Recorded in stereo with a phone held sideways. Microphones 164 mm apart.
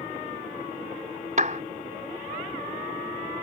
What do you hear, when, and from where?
1.4 s a clap: 50° right (ahead or behind)